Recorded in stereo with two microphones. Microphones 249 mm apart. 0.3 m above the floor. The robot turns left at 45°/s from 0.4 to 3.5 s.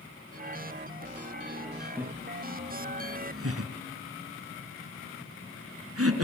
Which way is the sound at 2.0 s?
5° right (ahead or behind).